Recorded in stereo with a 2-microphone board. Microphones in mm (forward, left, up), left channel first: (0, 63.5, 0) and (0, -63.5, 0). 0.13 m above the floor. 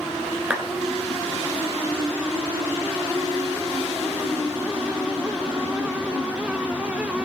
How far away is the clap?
About 1.6 m.